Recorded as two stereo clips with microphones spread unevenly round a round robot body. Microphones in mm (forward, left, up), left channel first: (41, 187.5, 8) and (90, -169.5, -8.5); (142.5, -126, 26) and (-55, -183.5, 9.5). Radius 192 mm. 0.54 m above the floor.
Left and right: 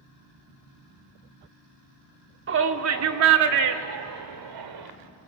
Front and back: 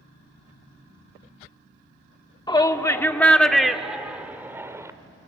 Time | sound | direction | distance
2.5 | a shout | 50° right | 1.5 m